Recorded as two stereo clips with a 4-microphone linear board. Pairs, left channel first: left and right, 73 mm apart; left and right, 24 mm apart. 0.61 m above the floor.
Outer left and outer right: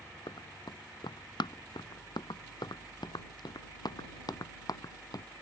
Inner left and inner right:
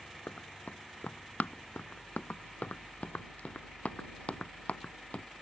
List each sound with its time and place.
0.3 s running footsteps: 85° left; by 5.2 s 55° left (ahead or behind)